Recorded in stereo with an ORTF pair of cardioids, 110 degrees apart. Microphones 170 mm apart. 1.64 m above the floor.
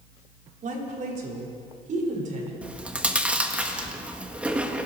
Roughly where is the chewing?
Ahead.